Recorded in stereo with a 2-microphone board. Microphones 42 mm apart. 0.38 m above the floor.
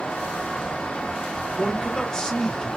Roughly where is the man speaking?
Left.